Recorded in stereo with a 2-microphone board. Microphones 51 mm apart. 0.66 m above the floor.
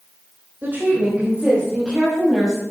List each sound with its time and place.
0.6 s a woman speaking: 40° right (ahead or behind), 3.5 m; by 2.6 s 10° right (ahead or behind), 5 m